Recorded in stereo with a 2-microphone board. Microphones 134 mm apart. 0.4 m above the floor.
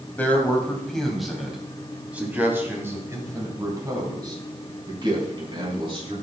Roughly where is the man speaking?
Centre.